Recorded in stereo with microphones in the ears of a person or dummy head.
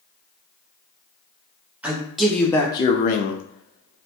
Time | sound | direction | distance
1.8 | a man speaking | 10° right (ahead or behind) | 0.9 m